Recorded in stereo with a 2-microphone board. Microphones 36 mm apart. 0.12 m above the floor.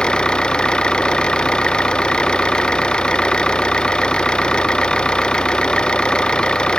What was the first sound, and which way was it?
An engine running, 25° left (ahead or behind).